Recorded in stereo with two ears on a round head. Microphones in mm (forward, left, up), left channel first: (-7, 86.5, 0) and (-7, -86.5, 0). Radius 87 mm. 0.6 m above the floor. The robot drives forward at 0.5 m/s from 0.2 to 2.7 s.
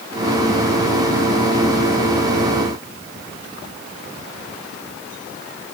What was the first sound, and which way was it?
Only background noise.